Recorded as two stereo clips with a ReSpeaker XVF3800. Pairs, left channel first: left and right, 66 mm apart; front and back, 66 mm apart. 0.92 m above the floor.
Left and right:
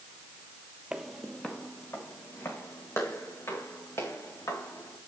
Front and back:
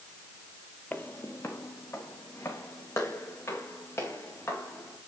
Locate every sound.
0.9 s footsteps: 20° right, 1.0 m; by 5.0 s 50° left, 5.5 m